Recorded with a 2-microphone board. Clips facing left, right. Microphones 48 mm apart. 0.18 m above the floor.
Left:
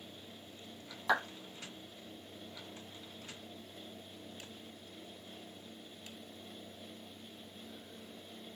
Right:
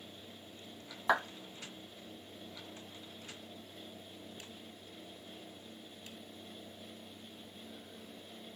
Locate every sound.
1.1 s a clap: 20° right (ahead or behind), 1.2 m